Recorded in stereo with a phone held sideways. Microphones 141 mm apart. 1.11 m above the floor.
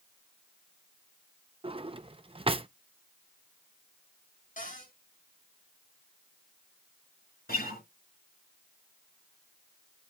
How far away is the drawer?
About 0.5 m.